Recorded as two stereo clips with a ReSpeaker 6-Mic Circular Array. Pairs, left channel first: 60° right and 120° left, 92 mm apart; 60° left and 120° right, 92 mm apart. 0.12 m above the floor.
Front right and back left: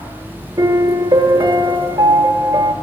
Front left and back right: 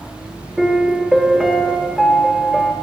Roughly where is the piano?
Behind left.